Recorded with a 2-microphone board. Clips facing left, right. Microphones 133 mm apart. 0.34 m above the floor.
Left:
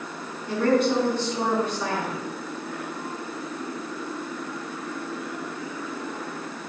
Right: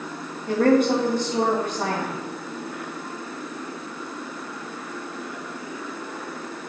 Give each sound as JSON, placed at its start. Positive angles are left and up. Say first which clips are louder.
{"t": 0.5, "sound": "a woman speaking", "louder": "right 3 dB", "side_deg": -50, "distance_m": 2.5}